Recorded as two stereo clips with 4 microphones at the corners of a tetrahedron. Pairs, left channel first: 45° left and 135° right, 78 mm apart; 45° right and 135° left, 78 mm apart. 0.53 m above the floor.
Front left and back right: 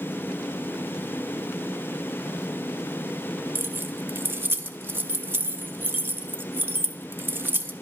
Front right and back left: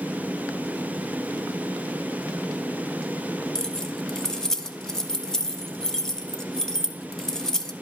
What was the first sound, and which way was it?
Keys jangling, 115° right.